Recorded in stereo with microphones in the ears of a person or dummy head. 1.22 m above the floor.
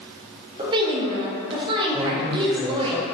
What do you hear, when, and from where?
0.6 s a woman speaking: 25° right (ahead or behind), 0.6 m
1.9 s a man speaking: 5° right (ahead or behind), 0.7 m